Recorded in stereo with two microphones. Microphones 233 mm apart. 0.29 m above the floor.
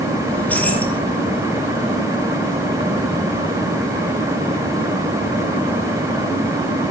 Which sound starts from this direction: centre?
Keys jangling, at 0.3 s.